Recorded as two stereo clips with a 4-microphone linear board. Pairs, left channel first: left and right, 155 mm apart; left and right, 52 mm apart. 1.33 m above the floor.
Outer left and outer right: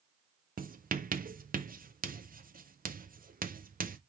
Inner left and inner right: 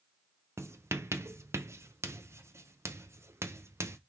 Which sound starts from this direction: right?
Writing, at 0.6 s.